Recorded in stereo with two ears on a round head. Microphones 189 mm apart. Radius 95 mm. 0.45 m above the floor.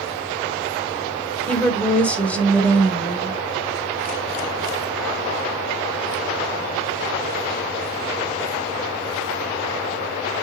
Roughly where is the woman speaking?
Centre.